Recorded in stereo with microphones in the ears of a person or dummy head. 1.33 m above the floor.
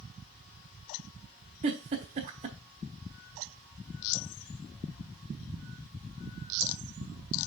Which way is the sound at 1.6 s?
25° right (ahead or behind).